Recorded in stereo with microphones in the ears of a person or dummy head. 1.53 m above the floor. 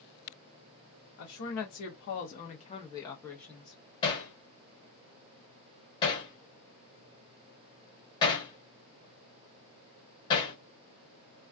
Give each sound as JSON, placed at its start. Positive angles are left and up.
{"t": 1.2, "sound": "a woman speaking", "side_deg": 60, "distance_m": 0.8}
{"t": 4.0, "sound": "hammering", "side_deg": 20, "distance_m": 0.7}